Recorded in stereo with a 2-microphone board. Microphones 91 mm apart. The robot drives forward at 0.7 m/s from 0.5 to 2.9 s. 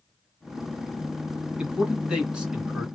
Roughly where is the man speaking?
Centre.